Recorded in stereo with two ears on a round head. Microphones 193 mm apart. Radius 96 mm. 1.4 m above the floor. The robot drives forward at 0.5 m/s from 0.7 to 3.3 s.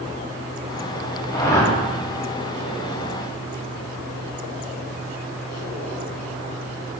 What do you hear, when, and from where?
1.3 s a whoosh: 15° left (ahead or behind), 2 m